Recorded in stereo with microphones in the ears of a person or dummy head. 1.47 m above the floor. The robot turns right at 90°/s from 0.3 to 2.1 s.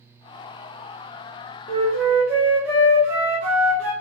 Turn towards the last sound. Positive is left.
turn(degrees=-175)